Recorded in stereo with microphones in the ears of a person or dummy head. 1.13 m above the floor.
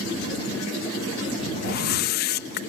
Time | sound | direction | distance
1.6 | a whoosh | 55° left (ahead or behind) | ?